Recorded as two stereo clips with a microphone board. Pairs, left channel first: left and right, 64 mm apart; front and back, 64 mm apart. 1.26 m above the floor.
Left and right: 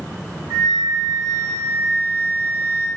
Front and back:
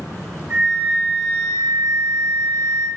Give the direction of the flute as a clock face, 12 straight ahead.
4 o'clock.